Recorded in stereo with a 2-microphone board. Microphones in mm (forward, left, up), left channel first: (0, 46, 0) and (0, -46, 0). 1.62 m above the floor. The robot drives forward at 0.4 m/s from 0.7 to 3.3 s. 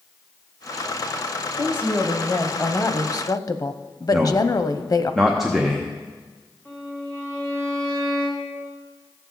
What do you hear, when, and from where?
1.6 s a woman speaking: 20° left (ahead or behind), 1.2 m; by 5.1 s 45° left (ahead or behind), 0.6 m
4.1 s a man speaking: centre (ahead or behind), 0.9 m
6.7 s a violin: 25° left (ahead or behind), 4 m